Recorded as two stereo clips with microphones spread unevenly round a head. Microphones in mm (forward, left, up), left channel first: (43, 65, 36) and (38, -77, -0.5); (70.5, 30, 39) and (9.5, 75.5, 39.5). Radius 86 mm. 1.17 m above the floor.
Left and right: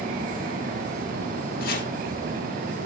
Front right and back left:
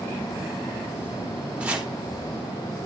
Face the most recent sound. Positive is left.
turn(degrees=70)